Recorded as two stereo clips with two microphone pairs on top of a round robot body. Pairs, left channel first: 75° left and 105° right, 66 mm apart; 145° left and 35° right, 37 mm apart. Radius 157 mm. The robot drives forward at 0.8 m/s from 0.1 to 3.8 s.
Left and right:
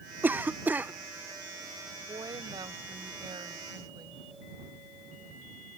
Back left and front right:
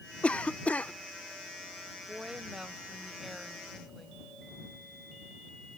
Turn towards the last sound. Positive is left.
turn(degrees=-125)